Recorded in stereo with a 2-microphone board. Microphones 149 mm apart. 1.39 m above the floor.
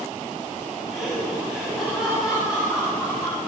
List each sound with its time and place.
0.9 s laughter: centre (ahead or behind), 9 m; by 3.4 s 5° right (ahead or behind), 10 m